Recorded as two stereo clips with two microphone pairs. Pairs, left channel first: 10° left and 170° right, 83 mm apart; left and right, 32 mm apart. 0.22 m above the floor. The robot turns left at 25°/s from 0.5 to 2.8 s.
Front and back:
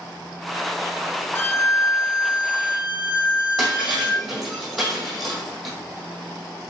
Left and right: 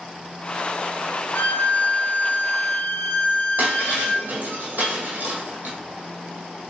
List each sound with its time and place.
1.4 s a violin: 65° left, 0.5 m; by 4.3 s 30° left, 0.5 m
3.6 s breaking glass: 85° right, 1.8 m